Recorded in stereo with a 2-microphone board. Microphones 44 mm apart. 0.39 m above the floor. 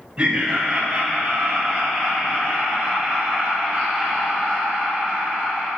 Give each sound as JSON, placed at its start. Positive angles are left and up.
{"t": 0.2, "sound": "laughter", "side_deg": -20, "distance_m": 1.4}